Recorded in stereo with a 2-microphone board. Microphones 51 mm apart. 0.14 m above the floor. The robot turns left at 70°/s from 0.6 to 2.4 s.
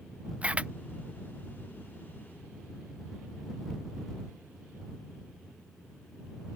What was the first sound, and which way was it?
A camera shutter, 25° right (ahead or behind).